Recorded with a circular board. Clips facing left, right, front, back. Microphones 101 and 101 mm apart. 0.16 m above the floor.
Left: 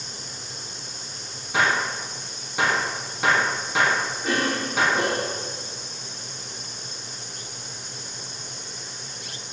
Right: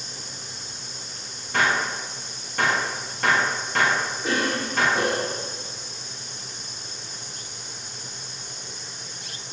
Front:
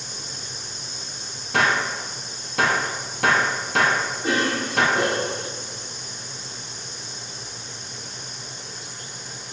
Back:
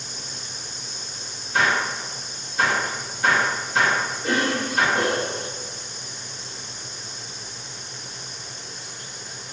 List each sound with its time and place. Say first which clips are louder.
1.5 s a gunshot: even, front 1 dB; 5° left, 0.9 m
4.2 s a cough: even, even; straight ahead, 1.6 m